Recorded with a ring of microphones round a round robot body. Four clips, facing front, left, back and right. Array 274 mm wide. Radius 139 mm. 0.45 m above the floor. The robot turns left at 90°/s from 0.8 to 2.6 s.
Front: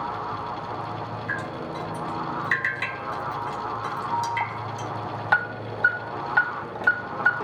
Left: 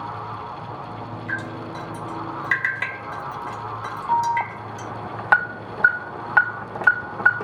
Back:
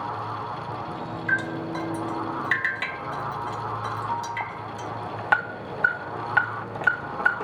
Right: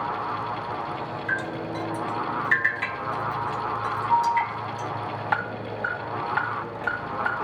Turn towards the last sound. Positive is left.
turn(degrees=100)